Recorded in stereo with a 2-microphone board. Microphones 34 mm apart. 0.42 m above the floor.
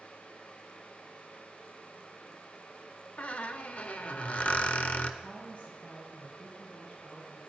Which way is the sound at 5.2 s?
45° left (ahead or behind).